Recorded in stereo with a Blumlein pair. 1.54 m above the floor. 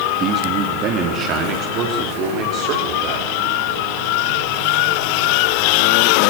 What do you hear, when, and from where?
0.2 s a man speaking: 25° right, 3.5 m; by 3.3 s 40° right, 6 m